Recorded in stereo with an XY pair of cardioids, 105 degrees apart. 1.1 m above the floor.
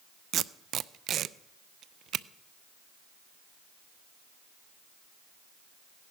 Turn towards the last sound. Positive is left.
turn(degrees=-65)